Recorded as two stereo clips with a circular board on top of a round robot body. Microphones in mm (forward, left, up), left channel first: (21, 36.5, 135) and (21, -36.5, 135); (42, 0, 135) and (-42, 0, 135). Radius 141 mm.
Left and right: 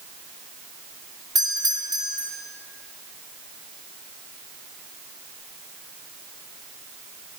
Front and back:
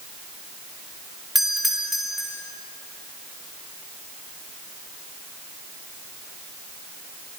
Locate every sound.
1.4 s a doorbell: 90° right, 3 m